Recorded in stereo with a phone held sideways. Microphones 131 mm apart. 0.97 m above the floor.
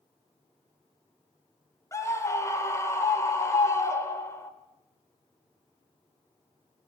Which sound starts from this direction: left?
A scream, at 1.9 s.